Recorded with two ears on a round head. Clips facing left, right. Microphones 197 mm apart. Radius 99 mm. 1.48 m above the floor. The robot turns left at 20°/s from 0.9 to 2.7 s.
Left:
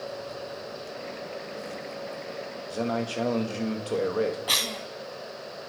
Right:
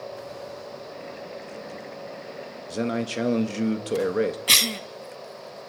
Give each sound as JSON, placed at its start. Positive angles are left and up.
{"t": 2.7, "sound": "a man speaking", "side_deg": -25, "distance_m": 1.8}
{"t": 4.5, "sound": "a cough", "side_deg": -35, "distance_m": 0.8}